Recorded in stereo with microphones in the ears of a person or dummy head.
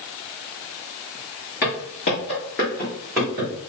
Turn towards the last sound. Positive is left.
turn(degrees=-15)  # may be behind; listen again after turning